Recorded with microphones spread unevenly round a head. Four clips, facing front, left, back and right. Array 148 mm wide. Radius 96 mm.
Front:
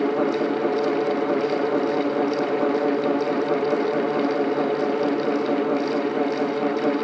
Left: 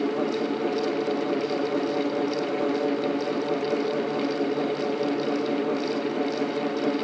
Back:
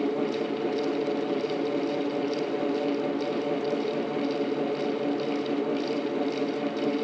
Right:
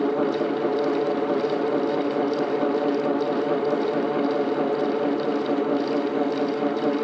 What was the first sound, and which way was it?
Only background noise.